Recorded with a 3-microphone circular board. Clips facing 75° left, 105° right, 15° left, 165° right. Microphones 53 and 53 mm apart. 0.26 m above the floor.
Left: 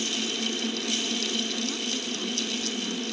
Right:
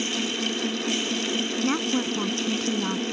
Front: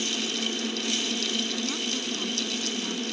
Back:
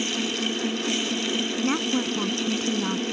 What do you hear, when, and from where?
1.6 s a woman speaking: 125° right